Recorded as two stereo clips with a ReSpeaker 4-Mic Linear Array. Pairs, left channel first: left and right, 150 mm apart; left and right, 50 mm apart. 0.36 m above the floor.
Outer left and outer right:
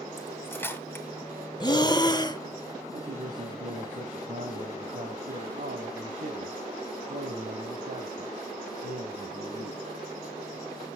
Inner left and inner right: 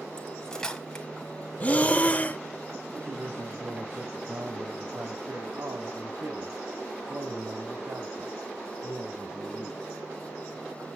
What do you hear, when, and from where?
0.2 s cutlery clinking: 15° left (ahead or behind), 1.6 m
1.6 s breathing: 30° left (ahead or behind), 0.8 m
2.9 s a man speaking: 65° right (ahead or behind), 2 m